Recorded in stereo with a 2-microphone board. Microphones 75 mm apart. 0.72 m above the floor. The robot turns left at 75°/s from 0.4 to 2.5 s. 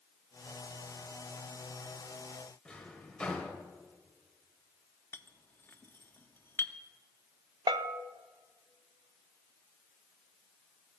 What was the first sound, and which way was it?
A drawer, 15° left (ahead or behind).